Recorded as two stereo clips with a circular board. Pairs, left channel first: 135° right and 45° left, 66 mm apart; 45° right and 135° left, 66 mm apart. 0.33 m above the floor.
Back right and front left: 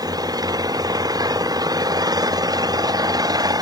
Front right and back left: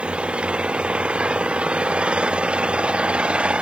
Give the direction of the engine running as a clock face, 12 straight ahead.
10 o'clock.